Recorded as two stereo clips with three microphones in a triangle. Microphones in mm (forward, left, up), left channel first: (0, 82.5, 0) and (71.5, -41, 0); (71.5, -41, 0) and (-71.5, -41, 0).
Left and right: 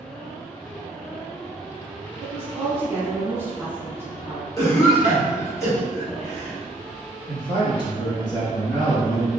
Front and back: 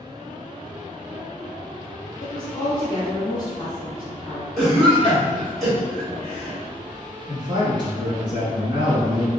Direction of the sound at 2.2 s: 5° right.